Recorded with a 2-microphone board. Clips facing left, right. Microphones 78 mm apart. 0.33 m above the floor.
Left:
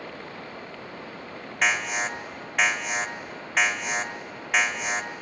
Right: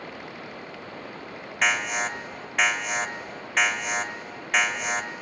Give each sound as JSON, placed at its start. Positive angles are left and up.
{"t": 1.6, "sound": "an alarm", "side_deg": 0, "distance_m": 1.6}